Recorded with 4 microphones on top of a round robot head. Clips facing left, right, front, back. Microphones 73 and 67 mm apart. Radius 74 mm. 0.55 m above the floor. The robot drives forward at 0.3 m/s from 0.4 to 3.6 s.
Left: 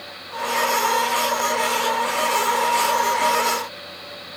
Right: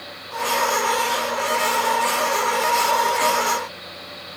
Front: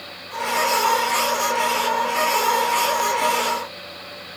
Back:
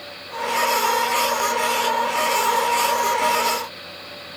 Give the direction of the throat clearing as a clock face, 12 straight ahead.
I don't hear throat clearing.